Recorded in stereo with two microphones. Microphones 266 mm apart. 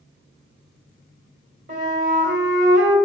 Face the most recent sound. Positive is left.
turn(degrees=-45)  # may be behind; listen again after turning